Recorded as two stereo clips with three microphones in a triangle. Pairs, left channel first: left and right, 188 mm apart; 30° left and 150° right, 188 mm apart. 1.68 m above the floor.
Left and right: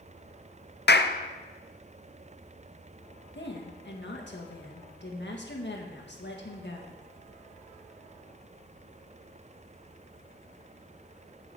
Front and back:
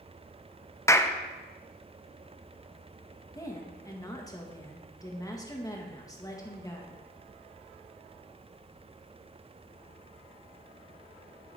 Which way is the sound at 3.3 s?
100° left.